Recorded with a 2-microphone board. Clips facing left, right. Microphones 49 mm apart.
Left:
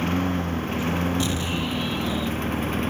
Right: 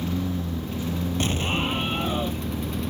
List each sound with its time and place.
0.0 s a lawn mower: 55° left (ahead or behind); by 2.9 s 50° left (ahead or behind)
1.2 s an explosion: 40° right (ahead or behind)